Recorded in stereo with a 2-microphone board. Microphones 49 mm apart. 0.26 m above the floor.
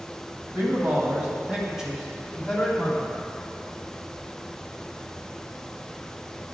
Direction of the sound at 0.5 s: 45° right (ahead or behind).